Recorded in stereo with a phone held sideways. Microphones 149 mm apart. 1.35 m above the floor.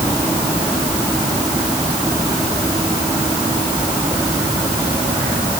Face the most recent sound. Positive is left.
No sound to turn to.